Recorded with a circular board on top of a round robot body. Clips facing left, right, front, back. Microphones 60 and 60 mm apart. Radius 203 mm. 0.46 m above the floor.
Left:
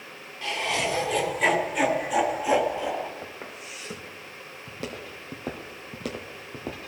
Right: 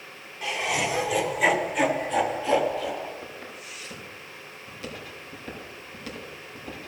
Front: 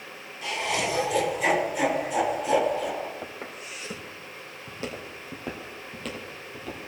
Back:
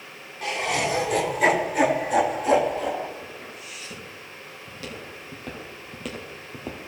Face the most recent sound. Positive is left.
turn(degrees=125)